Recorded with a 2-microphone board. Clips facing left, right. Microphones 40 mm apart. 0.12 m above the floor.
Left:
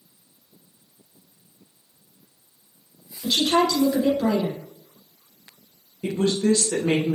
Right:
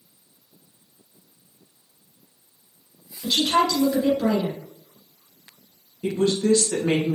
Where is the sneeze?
I don't hear a sneeze.